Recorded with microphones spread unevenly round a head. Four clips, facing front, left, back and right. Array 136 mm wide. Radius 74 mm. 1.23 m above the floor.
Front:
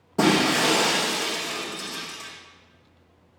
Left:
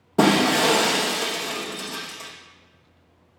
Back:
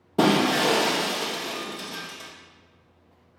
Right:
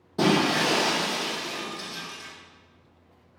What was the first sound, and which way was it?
Breaking glass, 115° left.